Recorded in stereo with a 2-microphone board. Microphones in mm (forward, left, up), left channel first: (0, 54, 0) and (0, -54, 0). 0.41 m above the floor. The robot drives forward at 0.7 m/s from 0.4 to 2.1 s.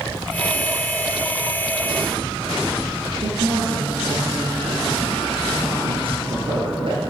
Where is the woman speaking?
60° right (ahead or behind), 7.5 m.